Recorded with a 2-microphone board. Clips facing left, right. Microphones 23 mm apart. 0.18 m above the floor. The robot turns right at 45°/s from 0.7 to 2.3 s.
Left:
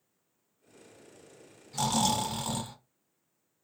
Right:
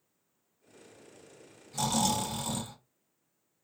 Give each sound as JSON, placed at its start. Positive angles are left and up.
{"t": 1.7, "sound": "snoring", "side_deg": 15, "distance_m": 1.1}